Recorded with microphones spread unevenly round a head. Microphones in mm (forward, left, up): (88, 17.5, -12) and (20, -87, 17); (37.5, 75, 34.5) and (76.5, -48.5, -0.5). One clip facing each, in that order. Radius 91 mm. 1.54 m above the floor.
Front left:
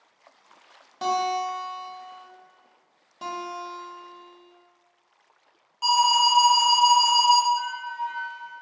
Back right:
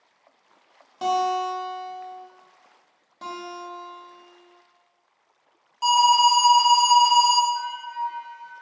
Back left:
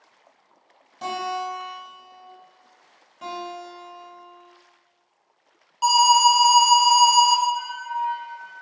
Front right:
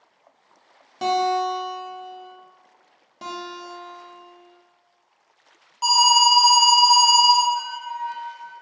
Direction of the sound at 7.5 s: 90° right.